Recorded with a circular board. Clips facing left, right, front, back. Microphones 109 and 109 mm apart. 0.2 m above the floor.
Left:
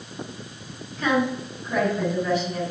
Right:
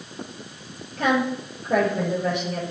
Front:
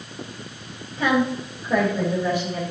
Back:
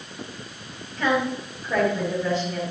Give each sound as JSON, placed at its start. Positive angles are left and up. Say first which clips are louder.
{"t": 1.0, "sound": "a woman speaking", "louder": "right 1 dB, front 2 dB", "azimuth_deg": -80, "distance_m": 5.0}